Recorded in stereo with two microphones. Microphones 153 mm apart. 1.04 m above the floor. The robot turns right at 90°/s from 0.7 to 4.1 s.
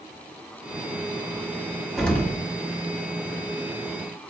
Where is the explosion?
5° right, 0.6 m; by 2.4 s 35° left, 0.6 m.